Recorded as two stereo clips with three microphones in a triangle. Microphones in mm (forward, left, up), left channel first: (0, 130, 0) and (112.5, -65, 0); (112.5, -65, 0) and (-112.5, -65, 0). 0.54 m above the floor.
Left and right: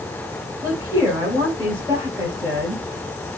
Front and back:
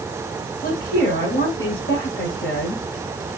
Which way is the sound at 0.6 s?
15° left.